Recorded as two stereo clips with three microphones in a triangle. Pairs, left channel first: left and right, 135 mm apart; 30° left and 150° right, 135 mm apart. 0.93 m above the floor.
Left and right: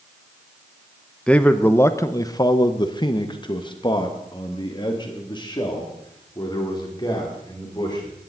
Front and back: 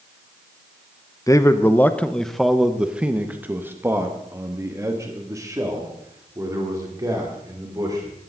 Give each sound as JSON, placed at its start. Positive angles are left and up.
{"t": 1.3, "sound": "a man speaking", "azimuth_deg": 20, "distance_m": 0.9}